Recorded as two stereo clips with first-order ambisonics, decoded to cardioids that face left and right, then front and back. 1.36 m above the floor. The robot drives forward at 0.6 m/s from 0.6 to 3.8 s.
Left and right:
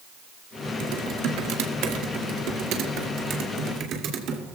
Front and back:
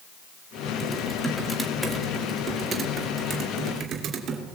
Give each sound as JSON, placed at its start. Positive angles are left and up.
{"t": 0.8, "sound": "typing on a keyboard", "azimuth_deg": -80, "distance_m": 1.7}